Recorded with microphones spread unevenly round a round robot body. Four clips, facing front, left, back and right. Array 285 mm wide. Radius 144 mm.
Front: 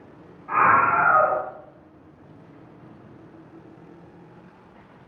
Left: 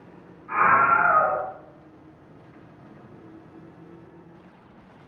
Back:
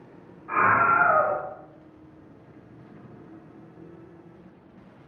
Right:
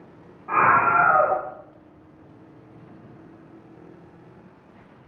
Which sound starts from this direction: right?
A scream, at 0.5 s.